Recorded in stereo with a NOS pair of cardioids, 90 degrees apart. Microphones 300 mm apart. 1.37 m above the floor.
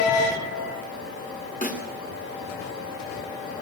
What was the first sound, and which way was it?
A snare drum, 25° left.